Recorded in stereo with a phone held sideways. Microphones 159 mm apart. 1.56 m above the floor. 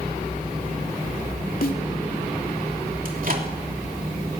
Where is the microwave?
60° right (ahead or behind), 3 m.